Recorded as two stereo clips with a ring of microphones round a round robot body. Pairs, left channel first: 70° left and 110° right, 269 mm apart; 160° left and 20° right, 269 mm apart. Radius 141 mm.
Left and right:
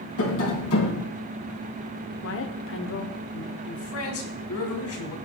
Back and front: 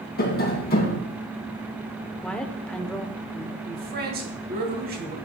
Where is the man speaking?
35° left, 2.5 m.